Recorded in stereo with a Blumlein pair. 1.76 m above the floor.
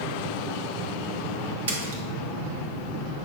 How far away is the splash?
About 1.7 m.